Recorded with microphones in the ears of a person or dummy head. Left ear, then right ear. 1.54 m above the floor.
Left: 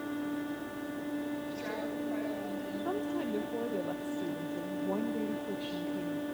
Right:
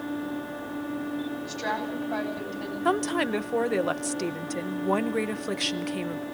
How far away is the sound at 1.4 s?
About 9.5 m.